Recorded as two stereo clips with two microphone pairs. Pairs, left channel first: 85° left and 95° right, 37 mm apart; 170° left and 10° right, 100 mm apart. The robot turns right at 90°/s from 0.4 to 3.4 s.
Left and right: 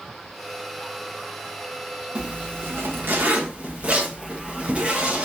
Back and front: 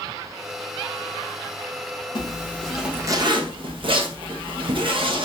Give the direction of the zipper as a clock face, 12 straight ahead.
5 o'clock.